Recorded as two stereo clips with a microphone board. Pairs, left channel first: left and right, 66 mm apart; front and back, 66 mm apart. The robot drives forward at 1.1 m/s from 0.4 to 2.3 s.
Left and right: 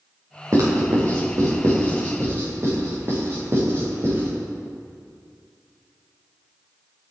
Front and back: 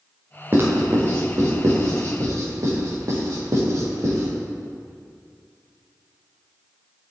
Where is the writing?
125° right, 5 m; by 4.3 s 140° right, 6 m.